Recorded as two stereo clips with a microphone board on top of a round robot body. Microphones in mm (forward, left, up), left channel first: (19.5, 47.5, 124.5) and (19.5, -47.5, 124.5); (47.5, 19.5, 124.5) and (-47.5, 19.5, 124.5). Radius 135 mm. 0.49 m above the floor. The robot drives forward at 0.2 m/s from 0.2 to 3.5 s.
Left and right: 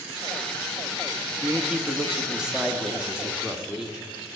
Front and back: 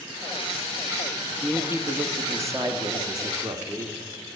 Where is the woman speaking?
155° right, 1.2 m; by 4.0 s 170° right, 1.4 m.